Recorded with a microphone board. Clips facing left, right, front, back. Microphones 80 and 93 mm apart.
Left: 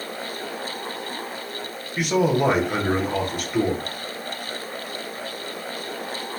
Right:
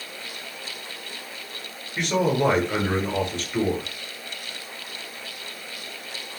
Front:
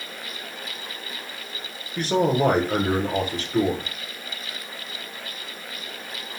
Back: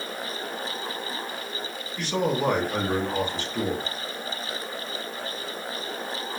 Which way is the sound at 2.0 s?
10° left.